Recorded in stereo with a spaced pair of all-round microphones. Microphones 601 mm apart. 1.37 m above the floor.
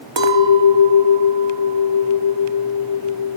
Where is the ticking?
I don't hear ticking.